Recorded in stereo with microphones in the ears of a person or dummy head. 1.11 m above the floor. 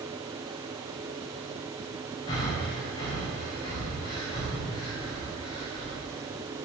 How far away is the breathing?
About 3.5 m.